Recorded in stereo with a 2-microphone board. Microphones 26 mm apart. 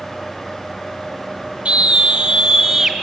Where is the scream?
50° right (ahead or behind), 1.6 m; by 2.9 s 20° right (ahead or behind), 2.5 m.